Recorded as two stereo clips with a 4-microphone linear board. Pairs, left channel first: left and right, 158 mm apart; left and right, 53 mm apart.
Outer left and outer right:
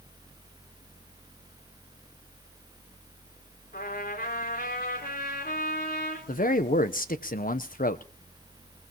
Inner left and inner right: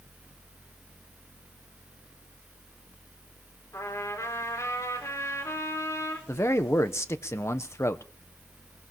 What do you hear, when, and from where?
3.7 s a trumpet: 80° left, 4.5 m
6.3 s a man speaking: 65° left (ahead or behind), 0.8 m